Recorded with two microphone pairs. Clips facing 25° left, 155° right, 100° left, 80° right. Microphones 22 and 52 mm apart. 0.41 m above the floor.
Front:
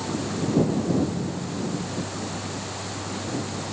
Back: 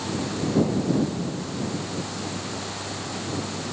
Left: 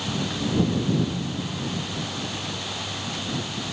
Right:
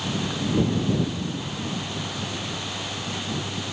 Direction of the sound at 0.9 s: 105° left.